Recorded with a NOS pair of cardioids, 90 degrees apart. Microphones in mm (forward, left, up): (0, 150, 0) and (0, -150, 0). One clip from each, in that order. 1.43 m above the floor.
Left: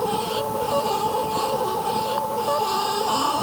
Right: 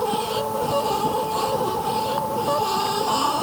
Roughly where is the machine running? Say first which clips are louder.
Right 1 dB; ahead.